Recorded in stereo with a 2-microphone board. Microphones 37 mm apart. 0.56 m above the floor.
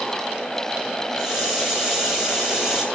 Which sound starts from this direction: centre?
A hiss, at 1.2 s.